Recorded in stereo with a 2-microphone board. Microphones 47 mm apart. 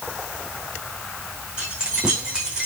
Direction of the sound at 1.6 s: 20° right (ahead or behind).